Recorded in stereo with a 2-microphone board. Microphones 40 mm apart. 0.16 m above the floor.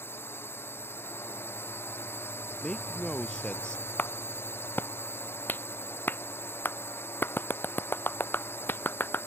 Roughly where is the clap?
Left.